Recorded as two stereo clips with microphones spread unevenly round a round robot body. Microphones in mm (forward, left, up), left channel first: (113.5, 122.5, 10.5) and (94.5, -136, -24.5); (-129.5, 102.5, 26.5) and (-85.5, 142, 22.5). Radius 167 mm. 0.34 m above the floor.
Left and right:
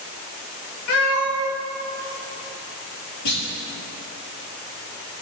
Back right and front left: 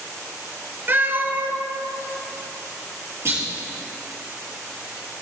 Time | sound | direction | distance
0.9 | a cat meowing | 100° left | 1.5 m
3.2 | a clunk | 90° left | 3.5 m